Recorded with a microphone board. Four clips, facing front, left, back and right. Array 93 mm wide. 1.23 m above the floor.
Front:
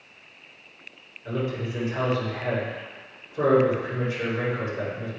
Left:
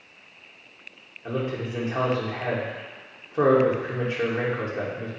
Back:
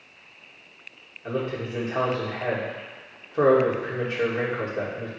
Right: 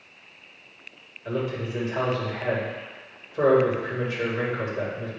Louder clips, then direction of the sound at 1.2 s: Even, back 1 dB; 130° left.